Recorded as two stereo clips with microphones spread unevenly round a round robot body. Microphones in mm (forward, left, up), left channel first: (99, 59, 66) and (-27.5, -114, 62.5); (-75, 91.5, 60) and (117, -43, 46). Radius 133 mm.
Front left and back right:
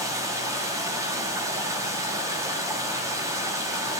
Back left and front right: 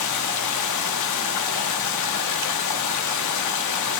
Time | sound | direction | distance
0.0 | running water | 155° left | 1.1 m